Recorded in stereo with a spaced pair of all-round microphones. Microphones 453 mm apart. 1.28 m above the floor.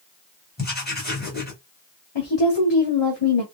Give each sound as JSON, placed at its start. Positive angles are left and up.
{"t": 0.6, "sound": "writing", "side_deg": 20, "distance_m": 2.5}
{"t": 2.1, "sound": "a woman speaking", "side_deg": 65, "distance_m": 1.1}